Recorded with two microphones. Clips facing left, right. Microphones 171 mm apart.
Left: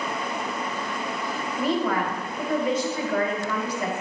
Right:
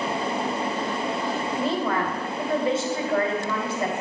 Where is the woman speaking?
25° right (ahead or behind), 1.9 m.